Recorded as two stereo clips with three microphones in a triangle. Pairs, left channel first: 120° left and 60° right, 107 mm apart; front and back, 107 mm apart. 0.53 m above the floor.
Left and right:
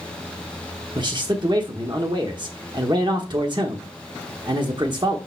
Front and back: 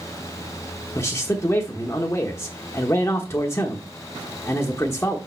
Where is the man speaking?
55° right, 1.1 m.